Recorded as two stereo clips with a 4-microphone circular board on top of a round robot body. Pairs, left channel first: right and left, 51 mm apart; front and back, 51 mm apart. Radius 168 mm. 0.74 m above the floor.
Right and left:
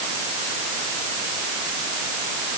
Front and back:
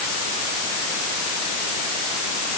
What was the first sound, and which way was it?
Only background noise.